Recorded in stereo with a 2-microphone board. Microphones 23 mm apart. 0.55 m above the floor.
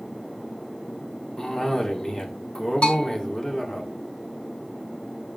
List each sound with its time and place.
1.4 s a cough: 30° left (ahead or behind), 1.7 m
2.8 s a bell: 65° left (ahead or behind), 2 m